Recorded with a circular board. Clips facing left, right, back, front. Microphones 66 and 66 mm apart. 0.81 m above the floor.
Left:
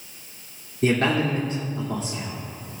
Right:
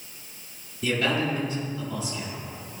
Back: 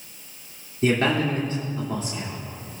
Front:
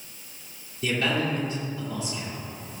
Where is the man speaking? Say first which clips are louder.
Left 4 dB, back 5 dB; 135° left, 2 m.